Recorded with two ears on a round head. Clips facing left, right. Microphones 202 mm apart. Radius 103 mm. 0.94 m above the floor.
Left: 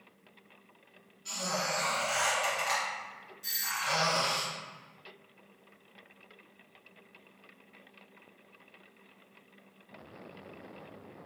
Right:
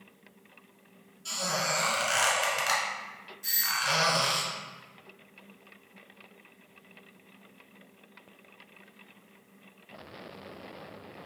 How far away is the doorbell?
About 0.7 m.